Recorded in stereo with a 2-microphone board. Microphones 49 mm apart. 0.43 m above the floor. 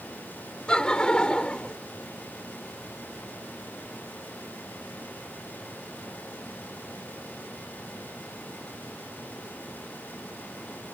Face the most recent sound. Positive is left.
turn(degrees=20)  # may be behind; listen again after turning